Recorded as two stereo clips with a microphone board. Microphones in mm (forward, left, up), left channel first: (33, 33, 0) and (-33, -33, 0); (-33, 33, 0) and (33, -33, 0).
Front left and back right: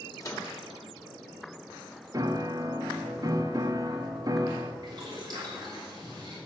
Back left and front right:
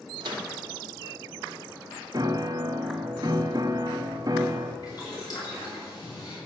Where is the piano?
90° right, 0.9 m.